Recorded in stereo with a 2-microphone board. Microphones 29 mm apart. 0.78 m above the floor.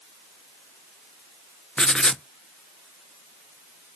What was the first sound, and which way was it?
Writing, 35° left (ahead or behind).